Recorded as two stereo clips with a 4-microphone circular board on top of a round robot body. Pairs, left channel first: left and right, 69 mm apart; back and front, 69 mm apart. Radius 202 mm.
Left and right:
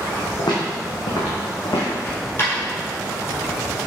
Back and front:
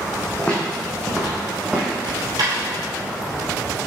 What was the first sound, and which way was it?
Footsteps, 110° left.